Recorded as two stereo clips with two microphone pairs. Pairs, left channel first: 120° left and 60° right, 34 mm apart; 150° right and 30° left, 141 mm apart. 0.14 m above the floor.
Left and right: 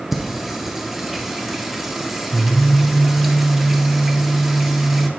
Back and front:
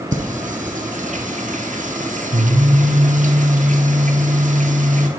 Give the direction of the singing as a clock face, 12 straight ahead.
11 o'clock.